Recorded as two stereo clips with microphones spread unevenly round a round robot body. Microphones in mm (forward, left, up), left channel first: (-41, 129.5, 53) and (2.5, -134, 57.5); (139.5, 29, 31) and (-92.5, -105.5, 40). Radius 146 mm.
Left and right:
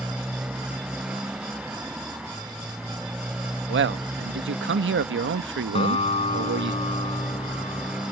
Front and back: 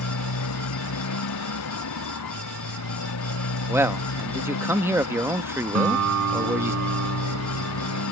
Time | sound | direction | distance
0.0 | a motorcycle | 5° left | ?
3.7 | a man speaking | 70° right | ?
5.8 | a guitar | 170° left | ?